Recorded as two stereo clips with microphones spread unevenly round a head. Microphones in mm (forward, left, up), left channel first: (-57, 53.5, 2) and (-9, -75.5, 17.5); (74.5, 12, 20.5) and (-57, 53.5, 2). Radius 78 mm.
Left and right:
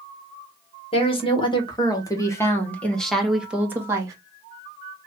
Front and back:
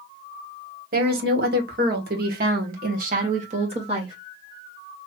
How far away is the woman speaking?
About 1.8 m.